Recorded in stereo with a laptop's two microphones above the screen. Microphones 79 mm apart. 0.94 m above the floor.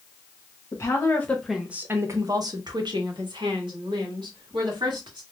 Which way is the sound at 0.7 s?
35° left (ahead or behind).